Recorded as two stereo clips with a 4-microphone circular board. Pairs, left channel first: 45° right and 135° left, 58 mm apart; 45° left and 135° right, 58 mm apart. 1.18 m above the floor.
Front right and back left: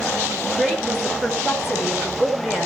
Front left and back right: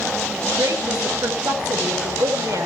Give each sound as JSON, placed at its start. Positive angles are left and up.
{"t": 0.5, "sound": "a woman speaking", "azimuth_deg": -145, "distance_m": 4.5}